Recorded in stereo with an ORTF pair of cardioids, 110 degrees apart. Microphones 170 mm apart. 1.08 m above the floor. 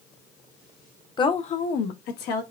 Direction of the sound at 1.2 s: 25° left.